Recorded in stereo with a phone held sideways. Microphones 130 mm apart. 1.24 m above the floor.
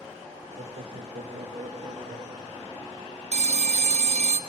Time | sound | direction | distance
0.6 | laughter | 70° right (ahead or behind) | 1.9 m
3.3 | a phone ringing | 60° right (ahead or behind) | 1.0 m